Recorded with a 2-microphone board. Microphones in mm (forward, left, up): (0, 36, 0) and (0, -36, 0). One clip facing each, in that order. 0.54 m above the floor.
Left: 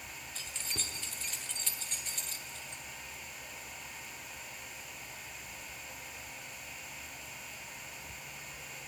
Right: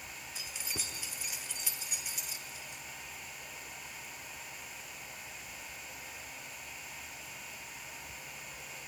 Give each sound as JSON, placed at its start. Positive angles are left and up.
{"t": 0.3, "sound": "keys jangling", "side_deg": -10, "distance_m": 0.9}